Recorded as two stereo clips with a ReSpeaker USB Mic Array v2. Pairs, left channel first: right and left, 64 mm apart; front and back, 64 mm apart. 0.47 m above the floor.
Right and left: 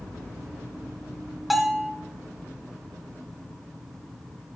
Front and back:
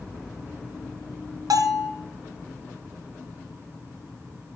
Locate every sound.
1.5 s a bell: 175° left, 1.6 m